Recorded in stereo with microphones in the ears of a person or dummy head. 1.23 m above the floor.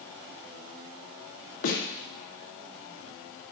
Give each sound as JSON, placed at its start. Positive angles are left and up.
{"t": 1.6, "sound": "a snare drum", "side_deg": 80, "distance_m": 2.0}